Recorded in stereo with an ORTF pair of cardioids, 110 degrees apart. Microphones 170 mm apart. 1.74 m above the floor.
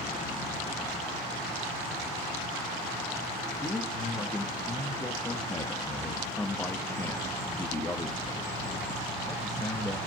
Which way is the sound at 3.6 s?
15° left.